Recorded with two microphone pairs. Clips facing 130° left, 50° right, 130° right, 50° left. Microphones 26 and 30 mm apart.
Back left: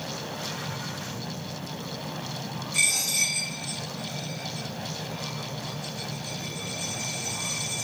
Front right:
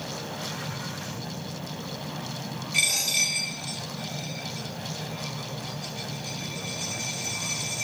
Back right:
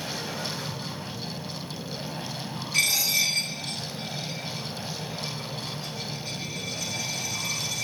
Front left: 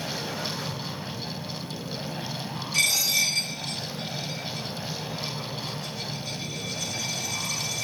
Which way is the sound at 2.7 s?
60° right.